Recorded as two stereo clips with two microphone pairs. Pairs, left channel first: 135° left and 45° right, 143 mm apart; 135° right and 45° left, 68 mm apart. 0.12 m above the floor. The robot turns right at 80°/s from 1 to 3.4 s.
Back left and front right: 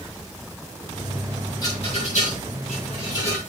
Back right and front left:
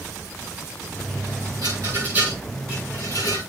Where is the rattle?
75° left, 7 m; by 3.4 s 145° right, 7 m.